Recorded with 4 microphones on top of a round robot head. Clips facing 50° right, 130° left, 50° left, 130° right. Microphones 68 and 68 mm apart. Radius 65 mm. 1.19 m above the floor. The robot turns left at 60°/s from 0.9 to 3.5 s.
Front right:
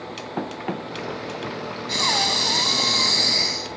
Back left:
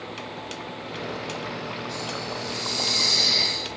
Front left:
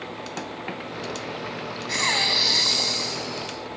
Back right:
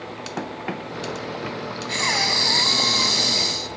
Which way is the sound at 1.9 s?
30° right.